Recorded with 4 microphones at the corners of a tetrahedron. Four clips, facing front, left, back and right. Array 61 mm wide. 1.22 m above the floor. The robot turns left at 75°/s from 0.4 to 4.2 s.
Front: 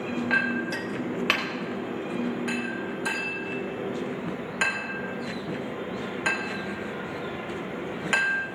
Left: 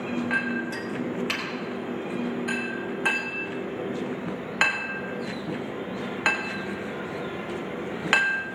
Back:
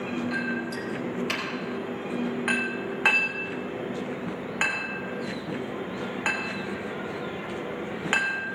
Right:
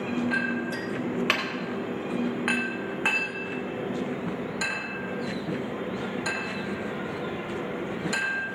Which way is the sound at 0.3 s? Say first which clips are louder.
Left 1 dB, front 4 dB; 30° left.